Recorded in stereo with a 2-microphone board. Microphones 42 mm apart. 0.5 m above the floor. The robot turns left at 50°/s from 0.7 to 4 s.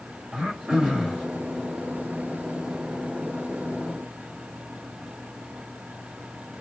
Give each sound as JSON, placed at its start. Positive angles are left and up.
{"t": 0.3, "sound": "throat clearing", "side_deg": -20, "distance_m": 2.5}